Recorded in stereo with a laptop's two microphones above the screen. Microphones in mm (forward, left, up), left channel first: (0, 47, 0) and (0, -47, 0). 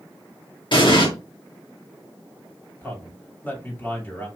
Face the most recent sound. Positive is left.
turn(degrees=20)  # may be behind; listen again after turning